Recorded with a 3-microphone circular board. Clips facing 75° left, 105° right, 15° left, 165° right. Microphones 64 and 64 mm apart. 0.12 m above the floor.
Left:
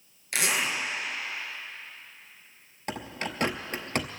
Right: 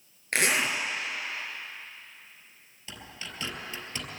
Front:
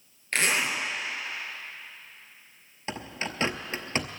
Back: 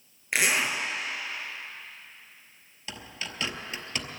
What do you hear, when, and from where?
0.3 s a zipper: 90° right, 2.5 m
2.9 s a bird: 60° left, 0.9 m